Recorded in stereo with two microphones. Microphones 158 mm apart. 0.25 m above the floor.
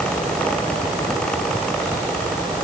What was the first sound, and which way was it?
Only background noise.